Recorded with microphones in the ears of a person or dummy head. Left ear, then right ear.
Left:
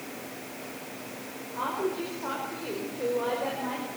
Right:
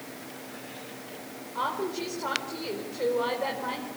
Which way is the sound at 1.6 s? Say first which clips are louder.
Even; 70° right (ahead or behind).